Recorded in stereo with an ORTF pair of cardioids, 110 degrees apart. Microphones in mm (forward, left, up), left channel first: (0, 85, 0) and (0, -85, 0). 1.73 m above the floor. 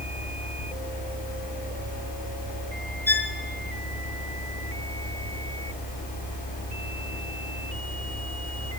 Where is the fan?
60° left, 5 m.